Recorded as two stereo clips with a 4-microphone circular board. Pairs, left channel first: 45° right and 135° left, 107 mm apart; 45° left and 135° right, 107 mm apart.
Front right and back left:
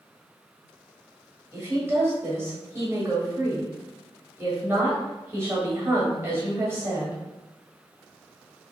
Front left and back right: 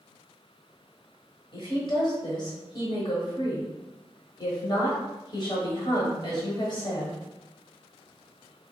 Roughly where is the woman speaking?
Left.